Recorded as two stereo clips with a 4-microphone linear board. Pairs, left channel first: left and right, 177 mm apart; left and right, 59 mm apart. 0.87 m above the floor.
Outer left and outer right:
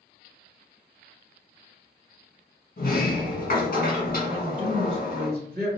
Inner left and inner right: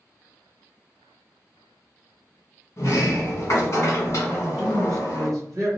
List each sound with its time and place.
2.8 s a sliding door: 55° left (ahead or behind), 1.4 m
4.3 s a woman speaking: 60° right (ahead or behind), 1.5 m